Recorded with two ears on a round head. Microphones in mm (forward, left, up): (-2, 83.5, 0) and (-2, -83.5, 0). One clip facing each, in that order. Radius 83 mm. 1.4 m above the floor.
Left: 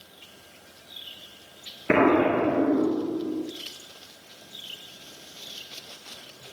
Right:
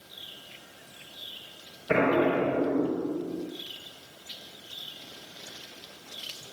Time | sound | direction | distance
1.9 | an explosion | 85° left | 2.5 m